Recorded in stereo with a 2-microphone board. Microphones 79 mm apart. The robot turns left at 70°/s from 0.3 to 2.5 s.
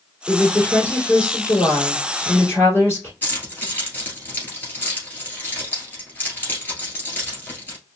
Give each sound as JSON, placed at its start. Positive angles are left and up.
{"t": 0.3, "sound": "a woman speaking", "azimuth_deg": -170, "distance_m": 3.0}
{"t": 3.2, "sound": "keys jangling", "side_deg": 25, "distance_m": 1.8}